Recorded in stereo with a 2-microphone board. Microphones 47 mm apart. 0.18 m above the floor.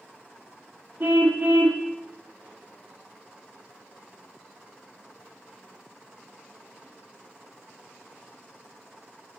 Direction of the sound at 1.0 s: 40° right (ahead or behind).